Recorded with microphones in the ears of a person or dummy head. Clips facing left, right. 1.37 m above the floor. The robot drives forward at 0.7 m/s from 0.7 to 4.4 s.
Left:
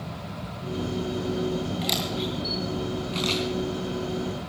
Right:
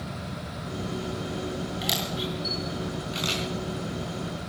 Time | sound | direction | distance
1.8 | a camera shutter | 10° right (ahead or behind) | 3 m